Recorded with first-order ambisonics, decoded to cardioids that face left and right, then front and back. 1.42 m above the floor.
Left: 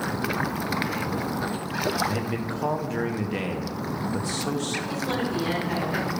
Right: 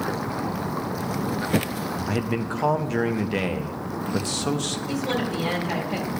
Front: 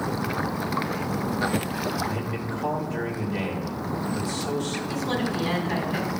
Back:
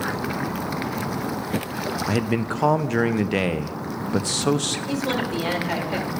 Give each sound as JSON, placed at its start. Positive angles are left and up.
{"t": 2.1, "sound": "a man speaking", "azimuth_deg": -165, "distance_m": 0.5}
{"t": 4.9, "sound": "a woman speaking", "azimuth_deg": -165, "distance_m": 2.5}